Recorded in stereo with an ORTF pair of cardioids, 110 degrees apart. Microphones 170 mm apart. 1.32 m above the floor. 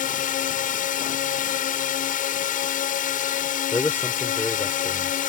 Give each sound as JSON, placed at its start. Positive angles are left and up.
{"t": 0.0, "sound": "a drone", "azimuth_deg": 55}
{"t": 3.7, "sound": "a man speaking", "azimuth_deg": 15}